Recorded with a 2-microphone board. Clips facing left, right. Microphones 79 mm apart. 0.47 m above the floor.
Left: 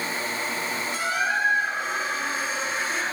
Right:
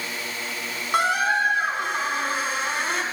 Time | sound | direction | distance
0.9 | a squeak | 70° right (ahead or behind) | 3.5 m